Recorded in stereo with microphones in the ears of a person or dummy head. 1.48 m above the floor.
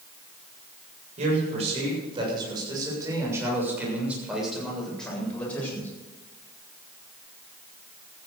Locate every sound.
1.2 s a man speaking: 45° right (ahead or behind), 7.5 m; by 5.9 s 10° left (ahead or behind), 8.5 m